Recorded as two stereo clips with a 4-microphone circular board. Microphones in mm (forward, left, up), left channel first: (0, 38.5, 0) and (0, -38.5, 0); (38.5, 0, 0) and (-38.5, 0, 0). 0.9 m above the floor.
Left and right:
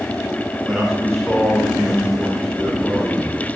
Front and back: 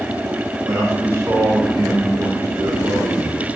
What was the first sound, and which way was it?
A man speaking, 175° right.